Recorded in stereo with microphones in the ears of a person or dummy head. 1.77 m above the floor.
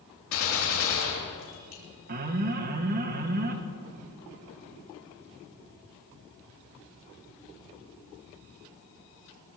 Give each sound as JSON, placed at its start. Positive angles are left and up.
{"t": 0.3, "sound": "a gunshot", "side_deg": 80, "distance_m": 3.5}
{"t": 2.1, "sound": "an alarm", "side_deg": -50, "distance_m": 1.0}